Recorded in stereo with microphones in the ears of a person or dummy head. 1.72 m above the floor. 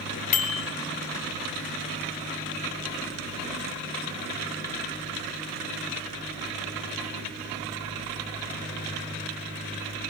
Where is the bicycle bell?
40° left (ahead or behind), 2.5 m.